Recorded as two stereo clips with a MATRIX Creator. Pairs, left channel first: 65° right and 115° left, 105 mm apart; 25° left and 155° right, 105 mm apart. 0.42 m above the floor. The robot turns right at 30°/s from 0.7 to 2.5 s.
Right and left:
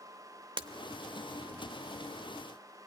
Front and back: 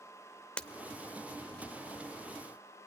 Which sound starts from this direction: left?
Breaking glass, at 0.6 s.